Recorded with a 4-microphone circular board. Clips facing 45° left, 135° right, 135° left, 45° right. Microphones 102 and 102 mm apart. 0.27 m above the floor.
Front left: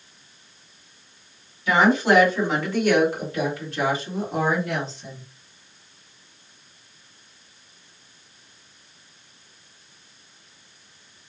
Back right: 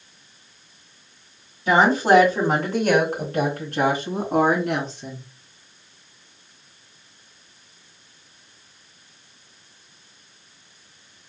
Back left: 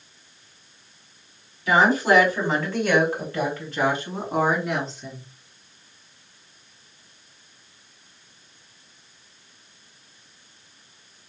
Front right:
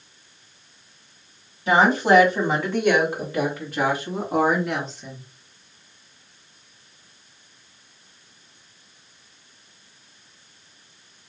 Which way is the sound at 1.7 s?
90° right.